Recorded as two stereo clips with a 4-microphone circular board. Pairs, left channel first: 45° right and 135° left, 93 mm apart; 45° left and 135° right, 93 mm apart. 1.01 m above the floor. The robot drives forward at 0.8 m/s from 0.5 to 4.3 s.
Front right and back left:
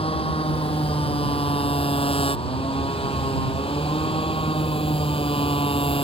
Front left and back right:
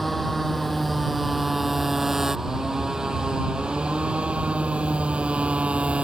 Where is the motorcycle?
45° right; by 6.0 s 55° right.